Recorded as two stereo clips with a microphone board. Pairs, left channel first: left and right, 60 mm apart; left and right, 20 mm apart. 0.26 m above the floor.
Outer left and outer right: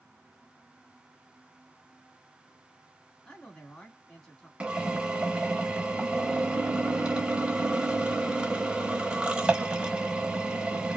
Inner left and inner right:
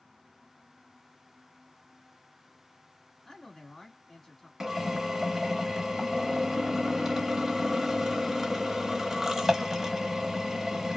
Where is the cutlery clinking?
I don't hear cutlery clinking.